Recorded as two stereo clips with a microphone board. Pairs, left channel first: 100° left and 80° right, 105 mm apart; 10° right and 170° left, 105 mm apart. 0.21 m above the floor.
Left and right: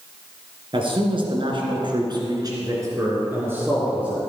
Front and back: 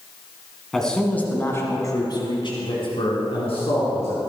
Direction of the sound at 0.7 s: 95° right.